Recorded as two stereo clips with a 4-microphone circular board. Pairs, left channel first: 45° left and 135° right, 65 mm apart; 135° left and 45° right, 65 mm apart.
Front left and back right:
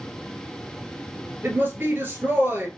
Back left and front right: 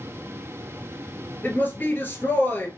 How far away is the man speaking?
About 1.8 m.